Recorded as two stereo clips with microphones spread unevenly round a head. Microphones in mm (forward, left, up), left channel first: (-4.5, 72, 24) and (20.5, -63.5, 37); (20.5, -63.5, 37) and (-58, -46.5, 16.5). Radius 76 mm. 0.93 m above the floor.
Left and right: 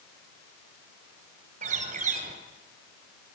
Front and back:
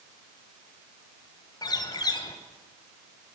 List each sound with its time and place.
1.6 s a bird: 45° right, 3.5 m